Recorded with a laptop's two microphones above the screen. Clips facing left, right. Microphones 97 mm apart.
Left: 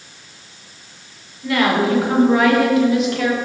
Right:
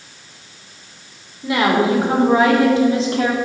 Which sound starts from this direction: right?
A woman speaking, at 1.4 s.